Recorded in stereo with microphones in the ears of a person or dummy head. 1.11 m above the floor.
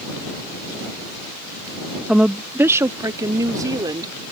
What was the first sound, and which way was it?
A woman speaking, centre (ahead or behind).